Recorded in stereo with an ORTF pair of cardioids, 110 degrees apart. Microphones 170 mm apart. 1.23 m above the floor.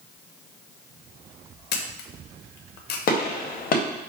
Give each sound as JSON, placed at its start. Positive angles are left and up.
{"t": 1.7, "sound": "a camera shutter", "azimuth_deg": 70, "distance_m": 0.6}
{"t": 3.1, "sound": "a gunshot", "azimuth_deg": 55, "distance_m": 0.7}